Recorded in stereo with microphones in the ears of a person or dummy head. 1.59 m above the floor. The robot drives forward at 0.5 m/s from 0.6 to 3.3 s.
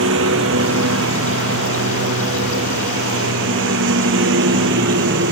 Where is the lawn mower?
75° right (ahead or behind); by 5.3 s 70° right (ahead or behind).